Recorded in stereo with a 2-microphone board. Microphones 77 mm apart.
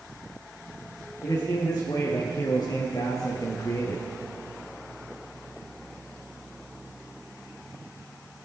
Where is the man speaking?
45° left (ahead or behind), 3.5 m; by 4.0 s 35° left (ahead or behind), 2.5 m.